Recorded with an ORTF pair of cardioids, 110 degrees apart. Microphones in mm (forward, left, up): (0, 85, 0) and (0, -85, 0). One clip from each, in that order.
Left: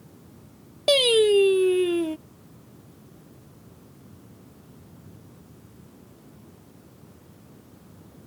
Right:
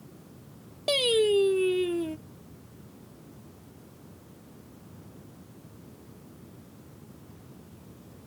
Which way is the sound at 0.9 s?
30° left.